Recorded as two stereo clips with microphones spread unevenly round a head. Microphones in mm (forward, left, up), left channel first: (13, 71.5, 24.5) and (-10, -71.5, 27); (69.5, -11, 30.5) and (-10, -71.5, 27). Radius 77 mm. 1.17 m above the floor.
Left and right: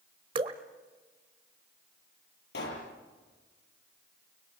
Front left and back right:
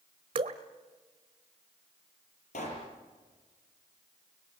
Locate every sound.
0.3 s dripping: 145° right, 1.2 m
2.5 s a pop: 65° left, 6.5 m